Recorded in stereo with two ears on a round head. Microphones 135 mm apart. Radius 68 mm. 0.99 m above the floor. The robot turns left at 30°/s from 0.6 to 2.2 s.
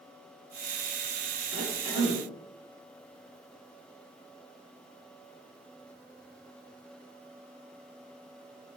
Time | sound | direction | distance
1.5 | a cough | 50° right (ahead or behind) | 8 m